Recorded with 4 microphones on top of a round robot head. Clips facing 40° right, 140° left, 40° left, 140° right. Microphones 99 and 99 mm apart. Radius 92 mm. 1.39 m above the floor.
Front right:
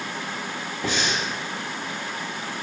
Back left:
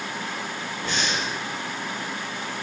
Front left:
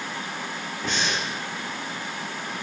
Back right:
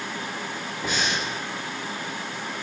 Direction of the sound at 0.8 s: 60° right.